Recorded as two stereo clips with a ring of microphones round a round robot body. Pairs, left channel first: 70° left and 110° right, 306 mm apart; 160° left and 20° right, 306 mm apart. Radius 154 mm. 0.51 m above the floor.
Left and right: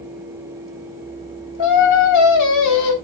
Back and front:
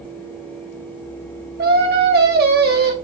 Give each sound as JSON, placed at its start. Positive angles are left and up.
{"t": 1.6, "sound": "singing", "azimuth_deg": 35, "distance_m": 2.5}